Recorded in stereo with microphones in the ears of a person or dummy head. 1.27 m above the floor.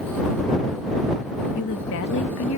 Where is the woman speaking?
75° left (ahead or behind); by 2.6 s 80° left.